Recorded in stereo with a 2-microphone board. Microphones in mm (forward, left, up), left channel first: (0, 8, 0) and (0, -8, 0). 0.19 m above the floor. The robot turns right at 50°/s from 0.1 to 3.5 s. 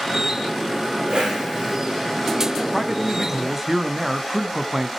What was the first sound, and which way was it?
A whoosh, 60° right.